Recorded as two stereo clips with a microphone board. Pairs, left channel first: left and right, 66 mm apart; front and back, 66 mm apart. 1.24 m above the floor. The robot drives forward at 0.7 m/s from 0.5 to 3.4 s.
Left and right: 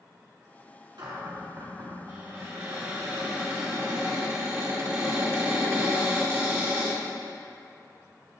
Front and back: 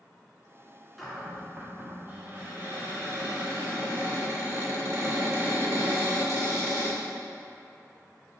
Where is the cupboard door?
90° right, 1.4 m; by 7.0 s 145° right, 2 m.